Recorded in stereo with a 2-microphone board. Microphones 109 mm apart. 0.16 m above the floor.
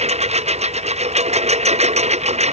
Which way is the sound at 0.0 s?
80° right.